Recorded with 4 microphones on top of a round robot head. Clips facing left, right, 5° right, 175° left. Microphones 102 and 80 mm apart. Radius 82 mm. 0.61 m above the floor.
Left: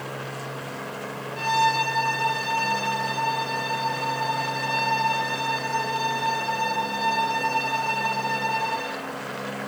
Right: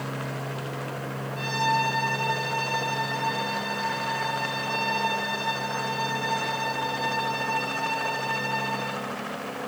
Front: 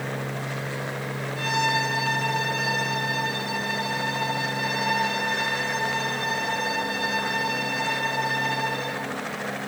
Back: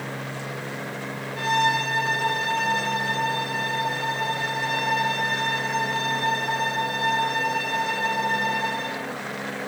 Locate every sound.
1.4 s a violin: 130° left, 9.5 m